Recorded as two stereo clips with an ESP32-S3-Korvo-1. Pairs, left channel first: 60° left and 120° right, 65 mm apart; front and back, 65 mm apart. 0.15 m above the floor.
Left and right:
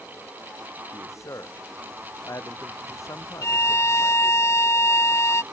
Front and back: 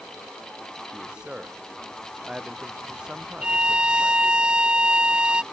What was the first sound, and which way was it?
A man speaking, 100° left.